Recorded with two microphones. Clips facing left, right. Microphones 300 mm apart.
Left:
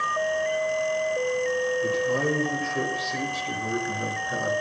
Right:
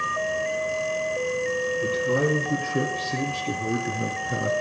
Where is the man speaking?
45° right (ahead or behind), 4 m; by 4.5 s 25° right (ahead or behind), 1.9 m.